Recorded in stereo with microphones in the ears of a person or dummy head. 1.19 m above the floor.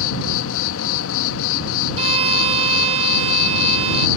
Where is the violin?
35° right (ahead or behind).